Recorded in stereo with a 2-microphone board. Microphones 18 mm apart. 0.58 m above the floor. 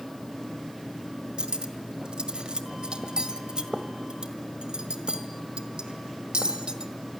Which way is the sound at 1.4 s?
55° right (ahead or behind).